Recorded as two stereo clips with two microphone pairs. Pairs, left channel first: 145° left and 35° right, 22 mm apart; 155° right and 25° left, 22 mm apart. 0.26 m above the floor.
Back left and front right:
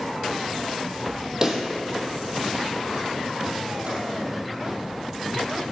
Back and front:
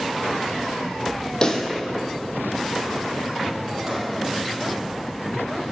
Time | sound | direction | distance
1.4 | a pop | 95° right | 1.8 m
3.4 | a drawer | 45° right | 4 m